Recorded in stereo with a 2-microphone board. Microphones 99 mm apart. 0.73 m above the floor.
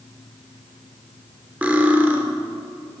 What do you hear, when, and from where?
1.6 s cutlery clinking: 15° right (ahead or behind), 1.1 m